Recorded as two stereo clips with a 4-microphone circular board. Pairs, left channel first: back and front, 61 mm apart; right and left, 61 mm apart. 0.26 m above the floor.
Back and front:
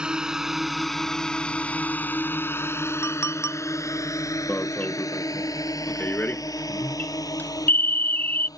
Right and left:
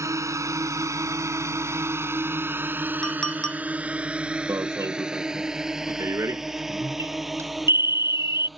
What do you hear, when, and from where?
0.0 s a drone: 70° left; by 8.6 s straight behind
3.0 s a clink: 165° right
4.5 s an alarm: 125° left